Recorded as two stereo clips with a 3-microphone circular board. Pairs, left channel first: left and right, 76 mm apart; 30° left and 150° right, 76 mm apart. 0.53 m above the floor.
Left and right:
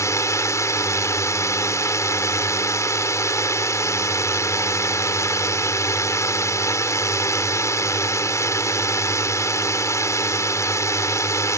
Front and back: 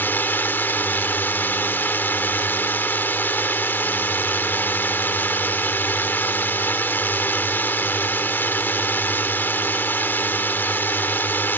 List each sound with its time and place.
0.0 s a drone: 80° left